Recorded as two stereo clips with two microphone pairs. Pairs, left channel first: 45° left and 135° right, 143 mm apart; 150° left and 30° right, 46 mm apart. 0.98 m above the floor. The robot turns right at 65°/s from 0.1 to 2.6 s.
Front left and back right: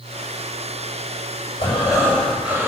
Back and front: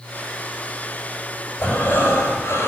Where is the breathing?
90° left, 5.5 m; by 2.7 s 155° left, 5.5 m.